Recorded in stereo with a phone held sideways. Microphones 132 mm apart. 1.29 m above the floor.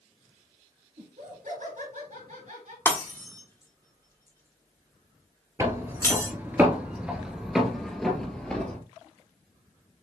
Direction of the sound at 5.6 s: 25° right (ahead or behind).